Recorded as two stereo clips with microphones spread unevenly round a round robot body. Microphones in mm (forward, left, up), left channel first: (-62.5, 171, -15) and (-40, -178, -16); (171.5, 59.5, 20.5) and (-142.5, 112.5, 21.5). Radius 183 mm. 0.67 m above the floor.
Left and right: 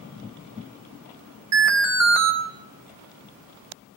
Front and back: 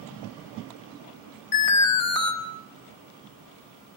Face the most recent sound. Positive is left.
turn(degrees=-40)